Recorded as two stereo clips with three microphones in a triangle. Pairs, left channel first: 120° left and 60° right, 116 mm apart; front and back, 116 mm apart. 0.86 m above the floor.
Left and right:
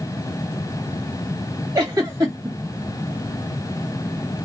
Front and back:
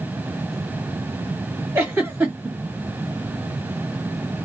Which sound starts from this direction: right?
A giggle, at 1.8 s.